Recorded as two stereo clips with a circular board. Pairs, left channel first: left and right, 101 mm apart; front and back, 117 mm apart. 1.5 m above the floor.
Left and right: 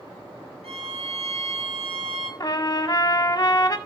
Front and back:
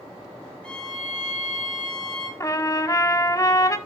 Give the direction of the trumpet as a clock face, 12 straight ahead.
10 o'clock.